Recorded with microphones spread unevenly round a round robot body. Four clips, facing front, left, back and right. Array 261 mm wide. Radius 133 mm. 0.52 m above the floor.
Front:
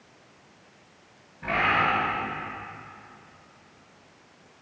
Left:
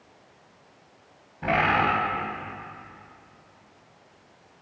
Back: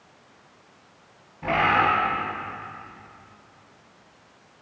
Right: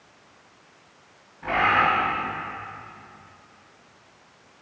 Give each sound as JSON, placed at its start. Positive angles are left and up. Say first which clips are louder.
{"t": 1.4, "sound": "a bird", "louder": "right 2 dB, back 4 dB", "azimuth_deg": 95, "distance_m": 2.0}